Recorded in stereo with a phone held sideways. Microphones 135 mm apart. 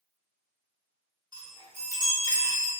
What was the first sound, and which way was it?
A chime, 30° right (ahead or behind).